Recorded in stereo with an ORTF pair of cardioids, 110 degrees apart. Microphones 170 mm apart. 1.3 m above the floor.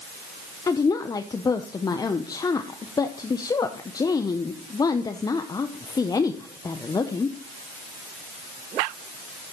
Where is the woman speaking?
20° left, 0.7 m.